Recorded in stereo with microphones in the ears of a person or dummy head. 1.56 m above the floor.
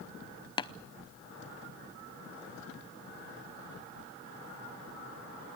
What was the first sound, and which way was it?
Tapping, 30° left (ahead or behind).